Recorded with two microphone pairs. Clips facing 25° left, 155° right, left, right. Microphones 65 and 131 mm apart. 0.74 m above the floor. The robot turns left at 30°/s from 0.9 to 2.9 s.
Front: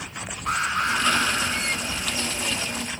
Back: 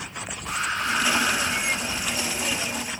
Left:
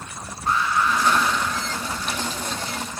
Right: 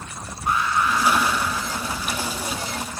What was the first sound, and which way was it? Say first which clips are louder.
An alarm: front 3 dB, even; 15° right.